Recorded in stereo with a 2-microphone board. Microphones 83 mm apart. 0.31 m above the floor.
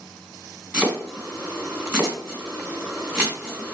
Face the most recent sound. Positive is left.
turn(degrees=-20)  # may be behind; listen again after turning